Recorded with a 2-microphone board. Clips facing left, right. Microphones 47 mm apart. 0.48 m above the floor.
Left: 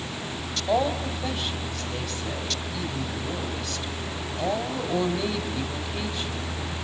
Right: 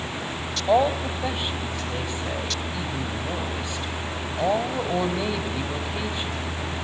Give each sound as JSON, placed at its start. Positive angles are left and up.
{"t": 0.7, "sound": "a woman speaking", "side_deg": -15, "distance_m": 3.0}